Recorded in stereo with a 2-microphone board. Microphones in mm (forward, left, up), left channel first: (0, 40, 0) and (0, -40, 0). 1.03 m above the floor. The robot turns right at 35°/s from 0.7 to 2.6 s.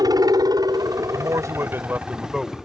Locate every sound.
0.0 s a helicopter: 55° right (ahead or behind); by 2.6 s centre (ahead or behind)
1.1 s a man speaking: 55° right; by 2.5 s 5° right